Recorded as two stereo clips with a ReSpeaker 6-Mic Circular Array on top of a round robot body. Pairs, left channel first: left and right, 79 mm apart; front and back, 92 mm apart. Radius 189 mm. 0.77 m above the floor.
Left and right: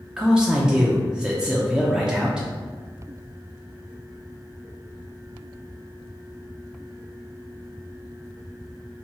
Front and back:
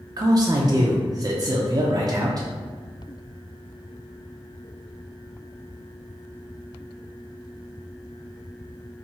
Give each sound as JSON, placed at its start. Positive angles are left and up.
{"t": 0.2, "sound": "a man speaking", "azimuth_deg": -165, "distance_m": 0.6}